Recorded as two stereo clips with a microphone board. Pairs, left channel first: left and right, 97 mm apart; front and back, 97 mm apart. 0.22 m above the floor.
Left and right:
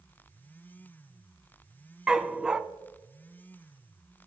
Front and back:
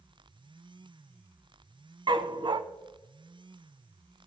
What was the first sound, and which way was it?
A dog barking, 170° right.